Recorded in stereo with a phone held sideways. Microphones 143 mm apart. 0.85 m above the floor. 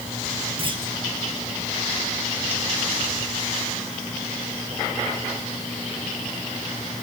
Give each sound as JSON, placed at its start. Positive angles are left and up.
{"t": 0.6, "sound": "a clunk", "side_deg": -40, "distance_m": 3.0}